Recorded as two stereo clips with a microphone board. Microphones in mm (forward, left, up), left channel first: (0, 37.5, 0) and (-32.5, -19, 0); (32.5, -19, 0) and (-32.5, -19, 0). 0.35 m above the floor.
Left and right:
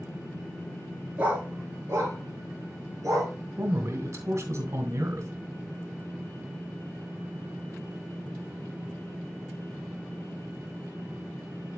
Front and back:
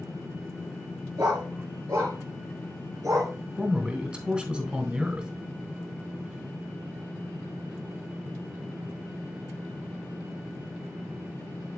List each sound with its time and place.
1.2 s a dog barking: 175° left, 2.5 m; by 3.3 s 155° right, 4 m
3.6 s a man speaking: 115° right, 1.2 m